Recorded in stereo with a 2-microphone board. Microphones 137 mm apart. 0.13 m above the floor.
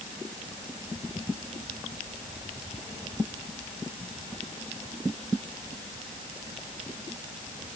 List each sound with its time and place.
Only background noise.